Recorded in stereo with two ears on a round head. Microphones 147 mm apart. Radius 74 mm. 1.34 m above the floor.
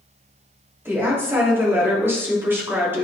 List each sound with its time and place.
0.8 s a woman speaking: 15° right (ahead or behind), 3 m